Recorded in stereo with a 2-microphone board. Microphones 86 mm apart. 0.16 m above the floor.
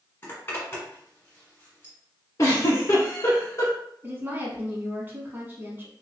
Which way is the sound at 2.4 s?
40° left (ahead or behind).